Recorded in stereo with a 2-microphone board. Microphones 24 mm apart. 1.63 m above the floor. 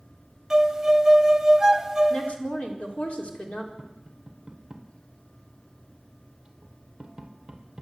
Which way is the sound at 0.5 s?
15° right (ahead or behind).